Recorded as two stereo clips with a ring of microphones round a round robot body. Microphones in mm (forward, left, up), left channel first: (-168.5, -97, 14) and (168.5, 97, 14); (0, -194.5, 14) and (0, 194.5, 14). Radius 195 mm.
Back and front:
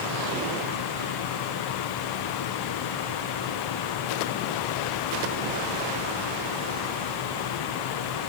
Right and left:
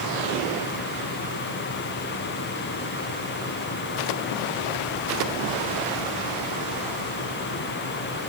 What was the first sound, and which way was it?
Only background noise.